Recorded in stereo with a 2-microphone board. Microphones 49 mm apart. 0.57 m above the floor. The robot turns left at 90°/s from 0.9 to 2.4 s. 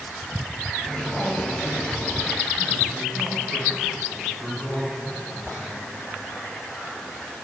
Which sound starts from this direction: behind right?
A woman speaking, at 0.9 s.